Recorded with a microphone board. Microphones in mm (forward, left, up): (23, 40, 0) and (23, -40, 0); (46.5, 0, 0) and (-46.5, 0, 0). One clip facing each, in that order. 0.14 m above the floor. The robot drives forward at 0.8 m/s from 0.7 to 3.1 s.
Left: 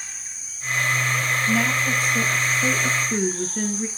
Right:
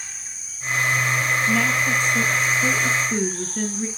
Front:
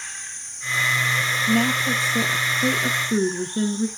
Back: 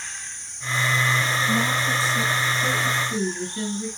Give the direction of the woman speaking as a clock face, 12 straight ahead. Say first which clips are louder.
Even, front 2 dB; 12 o'clock.